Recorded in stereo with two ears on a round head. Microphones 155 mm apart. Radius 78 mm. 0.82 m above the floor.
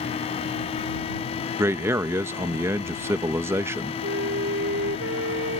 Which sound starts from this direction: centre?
A man speaking, at 1.6 s.